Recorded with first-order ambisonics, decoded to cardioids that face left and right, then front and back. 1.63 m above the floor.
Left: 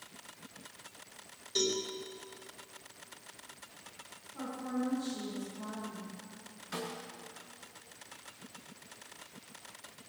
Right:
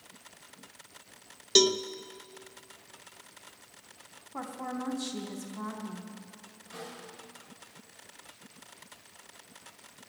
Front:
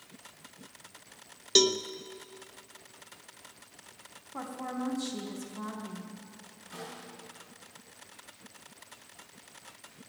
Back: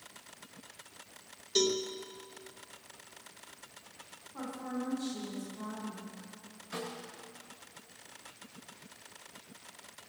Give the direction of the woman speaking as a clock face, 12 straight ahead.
2 o'clock.